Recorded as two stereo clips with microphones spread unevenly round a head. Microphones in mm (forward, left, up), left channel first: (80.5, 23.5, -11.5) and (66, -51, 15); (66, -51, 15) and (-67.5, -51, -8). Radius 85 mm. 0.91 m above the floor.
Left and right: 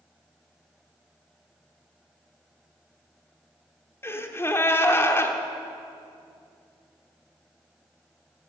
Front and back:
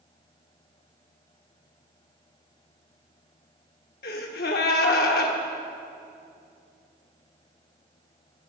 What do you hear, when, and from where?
4.0 s a gasp: 15° left, 1.2 m